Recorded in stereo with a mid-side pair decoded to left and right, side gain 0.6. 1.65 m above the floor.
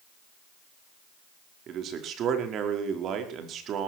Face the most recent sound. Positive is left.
turn(degrees=-50)